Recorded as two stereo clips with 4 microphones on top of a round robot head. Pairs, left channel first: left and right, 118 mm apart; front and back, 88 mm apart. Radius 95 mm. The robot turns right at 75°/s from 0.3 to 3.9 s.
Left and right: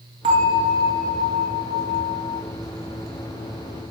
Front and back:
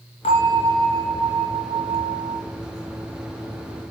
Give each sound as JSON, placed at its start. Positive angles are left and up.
{"t": 0.2, "sound": "a bell", "azimuth_deg": -35, "distance_m": 4.0}